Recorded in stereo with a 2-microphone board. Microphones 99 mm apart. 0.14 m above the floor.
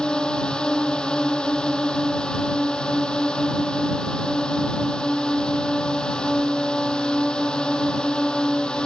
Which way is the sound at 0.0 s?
10° left (ahead or behind).